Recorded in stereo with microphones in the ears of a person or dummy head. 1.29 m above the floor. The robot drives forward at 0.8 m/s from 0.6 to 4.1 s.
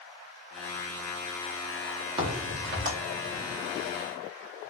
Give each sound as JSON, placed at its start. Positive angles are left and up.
{"t": 2.2, "sound": "a crack", "side_deg": -35, "distance_m": 1.0}